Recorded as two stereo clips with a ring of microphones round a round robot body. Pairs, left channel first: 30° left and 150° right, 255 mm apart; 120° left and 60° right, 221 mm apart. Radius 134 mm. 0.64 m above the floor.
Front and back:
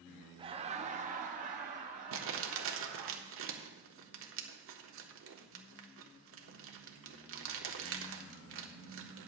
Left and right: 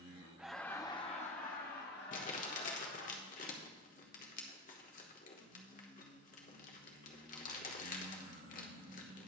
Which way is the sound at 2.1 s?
175° left.